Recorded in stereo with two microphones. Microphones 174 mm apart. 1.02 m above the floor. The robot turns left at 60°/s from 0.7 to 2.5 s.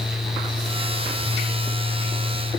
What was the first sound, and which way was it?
Only background noise.